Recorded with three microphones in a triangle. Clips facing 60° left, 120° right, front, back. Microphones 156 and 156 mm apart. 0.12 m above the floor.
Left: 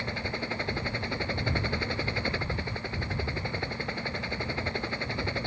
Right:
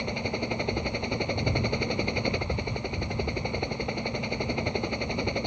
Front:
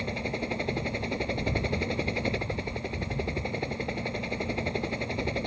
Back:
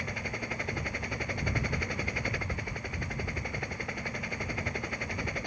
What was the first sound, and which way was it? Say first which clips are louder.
A helicopter: right 4 dB, front 6 dB; 55° right.